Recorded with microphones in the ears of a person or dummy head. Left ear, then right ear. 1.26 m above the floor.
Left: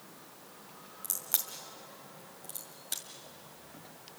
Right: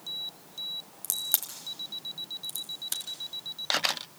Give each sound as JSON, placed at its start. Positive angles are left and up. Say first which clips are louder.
{"t": 1.0, "sound": "a crack", "louder": "right 4 dB", "side_deg": -5, "distance_m": 1.9}